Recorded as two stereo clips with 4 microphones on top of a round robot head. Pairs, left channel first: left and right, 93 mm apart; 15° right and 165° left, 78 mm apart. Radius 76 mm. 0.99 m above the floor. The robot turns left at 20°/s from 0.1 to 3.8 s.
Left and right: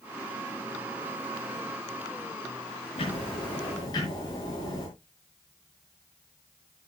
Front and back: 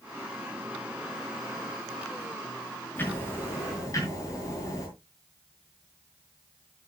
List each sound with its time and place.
3.0 s ticking: 50° left, 5.5 m; by 4.9 s 35° left, 5.5 m